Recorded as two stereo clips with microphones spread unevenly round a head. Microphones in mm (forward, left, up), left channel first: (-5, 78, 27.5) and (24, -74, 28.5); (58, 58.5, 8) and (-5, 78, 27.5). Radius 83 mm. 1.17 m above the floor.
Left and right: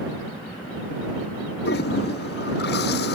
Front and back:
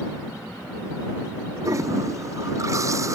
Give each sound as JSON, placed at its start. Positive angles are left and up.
{"t": 1.6, "sound": "a toilet flushing", "azimuth_deg": 130}